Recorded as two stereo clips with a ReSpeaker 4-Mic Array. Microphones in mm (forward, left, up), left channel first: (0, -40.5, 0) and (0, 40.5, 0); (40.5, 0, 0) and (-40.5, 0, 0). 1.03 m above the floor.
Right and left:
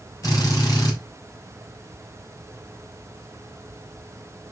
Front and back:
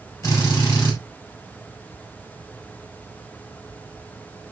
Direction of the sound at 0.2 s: 40° right.